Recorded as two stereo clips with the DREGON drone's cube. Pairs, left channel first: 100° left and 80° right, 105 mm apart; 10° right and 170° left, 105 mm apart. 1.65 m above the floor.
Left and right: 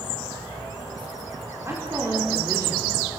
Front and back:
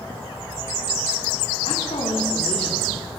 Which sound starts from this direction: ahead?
A woman speaking, at 1.6 s.